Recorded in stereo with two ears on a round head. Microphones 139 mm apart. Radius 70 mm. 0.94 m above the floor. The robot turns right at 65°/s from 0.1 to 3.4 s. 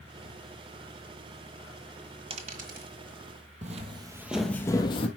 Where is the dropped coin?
35° right (ahead or behind), 1.5 m; by 2.9 s 65° right (ahead or behind), 1.5 m.